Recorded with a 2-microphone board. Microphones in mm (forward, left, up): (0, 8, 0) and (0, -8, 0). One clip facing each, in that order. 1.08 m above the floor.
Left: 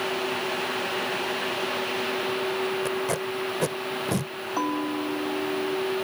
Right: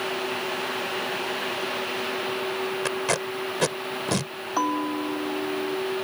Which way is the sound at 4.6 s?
35° right (ahead or behind).